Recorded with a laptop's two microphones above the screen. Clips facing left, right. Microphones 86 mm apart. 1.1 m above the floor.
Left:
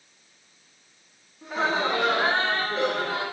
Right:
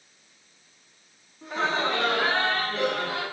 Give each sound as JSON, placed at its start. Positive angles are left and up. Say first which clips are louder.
{"t": 1.4, "sound": "laughter", "louder": "left 1 dB", "side_deg": 0, "distance_m": 2.0}